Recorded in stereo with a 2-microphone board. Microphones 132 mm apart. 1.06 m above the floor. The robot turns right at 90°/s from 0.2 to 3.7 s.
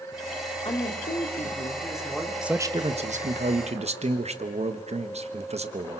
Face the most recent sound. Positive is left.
turn(degrees=-60)